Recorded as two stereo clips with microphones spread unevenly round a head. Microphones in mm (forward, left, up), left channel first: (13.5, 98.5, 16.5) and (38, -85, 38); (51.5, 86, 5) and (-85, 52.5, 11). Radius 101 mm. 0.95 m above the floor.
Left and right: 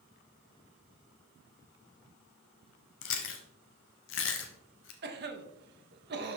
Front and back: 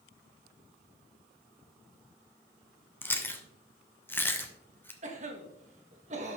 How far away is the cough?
About 1.2 m.